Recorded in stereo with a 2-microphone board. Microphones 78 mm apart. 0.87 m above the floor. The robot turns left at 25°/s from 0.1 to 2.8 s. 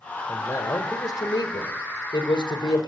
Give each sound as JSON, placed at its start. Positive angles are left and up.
{"t": 0.3, "sound": "a man speaking", "azimuth_deg": 140, "distance_m": 4.0}